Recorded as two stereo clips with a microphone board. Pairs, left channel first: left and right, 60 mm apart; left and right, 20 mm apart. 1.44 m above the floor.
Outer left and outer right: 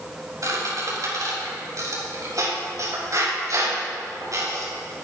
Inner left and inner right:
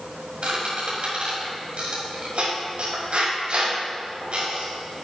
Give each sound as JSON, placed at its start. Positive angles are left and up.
{"t": 0.4, "sound": "a squeak", "side_deg": -60, "distance_m": 5.5}